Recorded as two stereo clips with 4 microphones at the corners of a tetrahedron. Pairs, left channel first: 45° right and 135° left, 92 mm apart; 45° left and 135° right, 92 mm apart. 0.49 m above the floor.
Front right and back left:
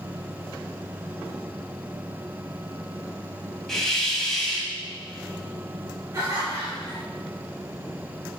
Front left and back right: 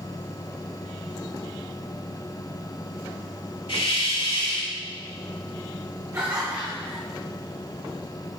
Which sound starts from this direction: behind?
Laughter, at 6.1 s.